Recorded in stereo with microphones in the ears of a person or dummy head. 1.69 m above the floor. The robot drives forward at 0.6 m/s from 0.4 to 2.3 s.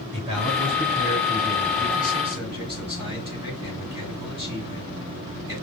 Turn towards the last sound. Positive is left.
turn(degrees=-20)  # may be behind; listen again after turning